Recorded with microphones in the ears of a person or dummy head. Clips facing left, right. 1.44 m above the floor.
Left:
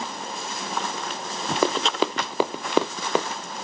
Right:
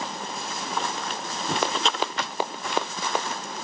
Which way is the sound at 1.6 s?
70° left (ahead or behind).